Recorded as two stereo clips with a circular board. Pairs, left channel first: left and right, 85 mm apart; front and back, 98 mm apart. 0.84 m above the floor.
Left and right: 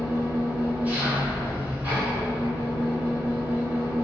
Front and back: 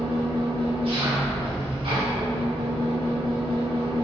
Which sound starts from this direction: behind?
An engine running, at 0.0 s.